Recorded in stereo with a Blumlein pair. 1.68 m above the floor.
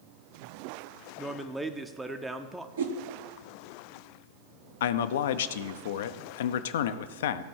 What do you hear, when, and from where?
1.2 s a man speaking: 5° right, 0.7 m
2.8 s a whoosh: 65° right, 1.2 m
4.8 s a man speaking: 55° left, 0.6 m